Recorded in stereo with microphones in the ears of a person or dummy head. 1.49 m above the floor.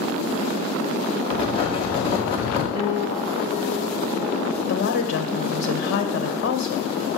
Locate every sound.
1.3 s writing: 25° left (ahead or behind), 1.8 m
2.7 s a piano: 45° right (ahead or behind), 5.5 m
4.7 s a woman speaking: 55° left (ahead or behind), 1.4 m